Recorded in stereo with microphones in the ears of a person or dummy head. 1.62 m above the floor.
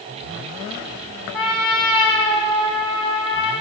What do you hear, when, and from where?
1.3 s a trumpet: centre (ahead or behind), 0.7 m